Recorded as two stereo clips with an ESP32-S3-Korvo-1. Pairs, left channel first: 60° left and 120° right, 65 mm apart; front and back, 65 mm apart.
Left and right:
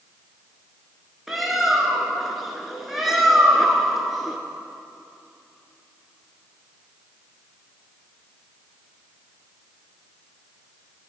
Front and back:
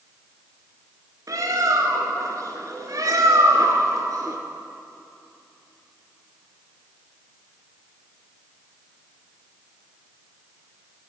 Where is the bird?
155° left, 0.8 m.